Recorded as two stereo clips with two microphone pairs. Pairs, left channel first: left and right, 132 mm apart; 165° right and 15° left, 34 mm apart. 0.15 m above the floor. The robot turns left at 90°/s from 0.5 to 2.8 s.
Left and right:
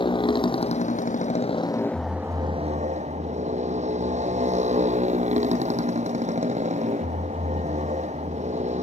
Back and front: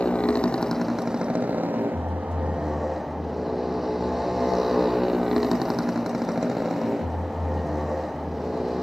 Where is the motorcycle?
135° left; by 8.8 s 70° right.